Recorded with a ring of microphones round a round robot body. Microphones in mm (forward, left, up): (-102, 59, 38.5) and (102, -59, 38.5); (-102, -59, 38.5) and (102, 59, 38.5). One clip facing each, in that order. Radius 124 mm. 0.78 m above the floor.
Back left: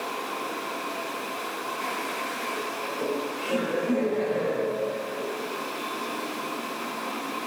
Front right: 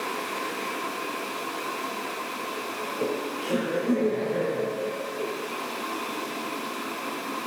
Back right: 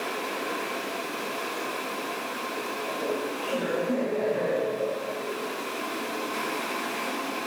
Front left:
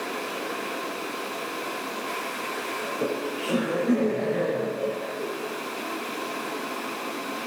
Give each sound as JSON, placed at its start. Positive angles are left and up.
{"t": 2.8, "sound": "laughter", "azimuth_deg": 30, "distance_m": 3.5}